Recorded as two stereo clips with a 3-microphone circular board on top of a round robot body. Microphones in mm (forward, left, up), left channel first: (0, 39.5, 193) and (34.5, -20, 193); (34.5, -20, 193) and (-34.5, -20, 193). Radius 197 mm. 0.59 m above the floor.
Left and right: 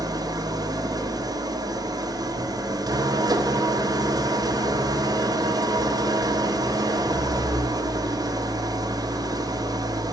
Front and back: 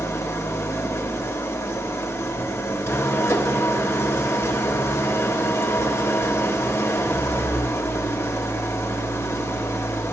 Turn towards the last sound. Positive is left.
turn(degrees=-45)